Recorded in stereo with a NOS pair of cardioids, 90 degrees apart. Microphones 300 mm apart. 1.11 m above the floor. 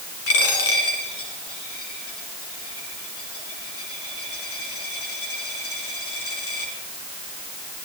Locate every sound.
0.3 s a dropped coin: 50° left, 4.5 m